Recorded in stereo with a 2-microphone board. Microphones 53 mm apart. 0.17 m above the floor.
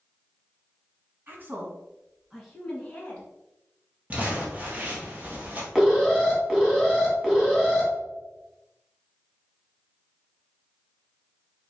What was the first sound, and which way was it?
A woman speaking, 40° right (ahead or behind).